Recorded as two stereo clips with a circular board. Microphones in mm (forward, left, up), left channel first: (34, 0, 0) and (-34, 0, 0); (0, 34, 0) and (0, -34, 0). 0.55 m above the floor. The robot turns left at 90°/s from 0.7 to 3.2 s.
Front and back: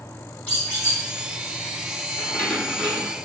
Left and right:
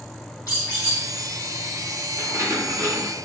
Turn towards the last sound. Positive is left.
turn(degrees=-135)